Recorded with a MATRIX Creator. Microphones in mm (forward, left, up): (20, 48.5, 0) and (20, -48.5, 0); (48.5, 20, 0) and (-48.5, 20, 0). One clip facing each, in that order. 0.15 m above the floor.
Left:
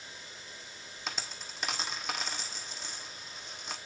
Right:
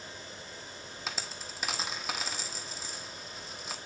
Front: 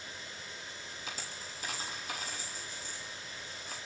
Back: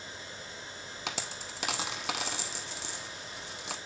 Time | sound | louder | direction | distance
1.1 | a dropped coin | even, back 7 dB | straight behind | 1.0 m